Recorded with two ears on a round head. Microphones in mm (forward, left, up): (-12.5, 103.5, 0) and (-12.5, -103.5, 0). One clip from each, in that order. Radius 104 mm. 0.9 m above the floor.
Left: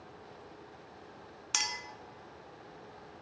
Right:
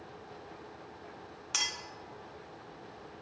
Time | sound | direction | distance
1.5 | a clink | 20° left (ahead or behind) | 0.6 m